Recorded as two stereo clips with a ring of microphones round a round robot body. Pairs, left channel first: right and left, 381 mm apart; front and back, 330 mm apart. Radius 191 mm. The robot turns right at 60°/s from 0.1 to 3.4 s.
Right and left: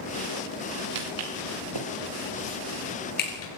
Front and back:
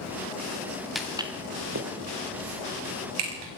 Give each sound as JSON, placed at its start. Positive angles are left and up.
{"t": 0.9, "sound": "footsteps", "azimuth_deg": 90, "distance_m": 4.0}